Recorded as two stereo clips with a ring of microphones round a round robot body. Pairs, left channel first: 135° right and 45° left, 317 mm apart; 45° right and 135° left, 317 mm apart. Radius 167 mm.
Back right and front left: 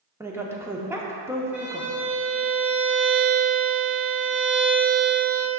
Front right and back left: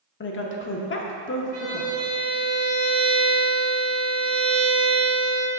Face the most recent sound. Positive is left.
turn(degrees=125)